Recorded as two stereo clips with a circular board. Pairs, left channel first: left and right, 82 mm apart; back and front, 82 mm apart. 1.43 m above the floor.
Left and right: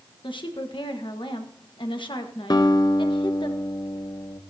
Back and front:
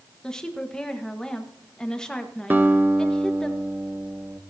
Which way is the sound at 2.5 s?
65° left.